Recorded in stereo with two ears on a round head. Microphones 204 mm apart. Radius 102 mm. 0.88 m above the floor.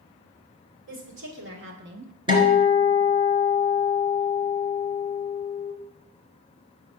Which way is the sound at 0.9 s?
55° right (ahead or behind).